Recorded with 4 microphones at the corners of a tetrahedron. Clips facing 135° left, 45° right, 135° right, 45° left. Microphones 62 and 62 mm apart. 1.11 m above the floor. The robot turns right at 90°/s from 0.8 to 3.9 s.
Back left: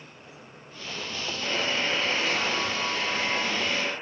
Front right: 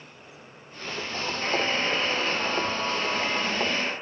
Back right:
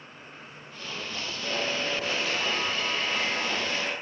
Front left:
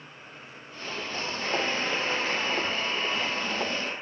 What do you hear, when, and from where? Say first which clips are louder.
1.4 s a buzzer: front right 2 dB, front left 1 dB; 10° left, 8 m; by 3.9 s 125° right, 8 m